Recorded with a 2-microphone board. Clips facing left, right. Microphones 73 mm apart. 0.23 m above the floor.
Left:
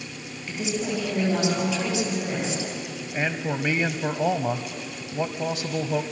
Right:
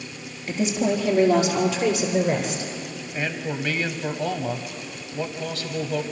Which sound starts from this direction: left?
A man speaking, at 3.1 s.